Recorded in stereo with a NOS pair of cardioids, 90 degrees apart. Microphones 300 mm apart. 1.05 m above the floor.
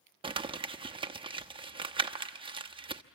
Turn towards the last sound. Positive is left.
turn(degrees=-15)